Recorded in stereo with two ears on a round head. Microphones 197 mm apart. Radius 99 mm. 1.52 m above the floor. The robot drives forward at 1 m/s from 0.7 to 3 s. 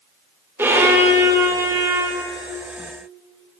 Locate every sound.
0.6 s a violin: 10° right (ahead or behind), 5 m; by 2.3 s 15° right (ahead or behind), 3.5 m